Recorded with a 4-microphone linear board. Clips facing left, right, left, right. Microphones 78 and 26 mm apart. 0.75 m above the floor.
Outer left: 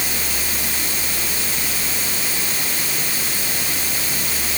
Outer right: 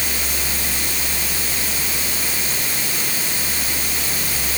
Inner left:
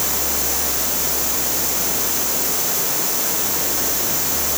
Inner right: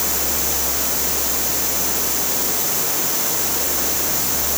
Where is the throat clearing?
I don't hear throat clearing.